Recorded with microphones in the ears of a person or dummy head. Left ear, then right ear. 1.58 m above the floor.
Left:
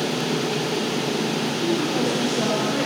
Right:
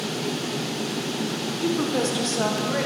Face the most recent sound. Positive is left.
turn(degrees=-40)  # may be behind; listen again after turning